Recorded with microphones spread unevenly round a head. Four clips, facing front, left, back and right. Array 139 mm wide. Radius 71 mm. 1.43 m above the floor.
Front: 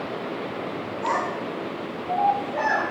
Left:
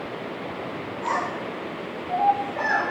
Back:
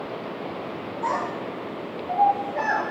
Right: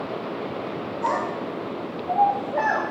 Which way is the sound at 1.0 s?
95° right.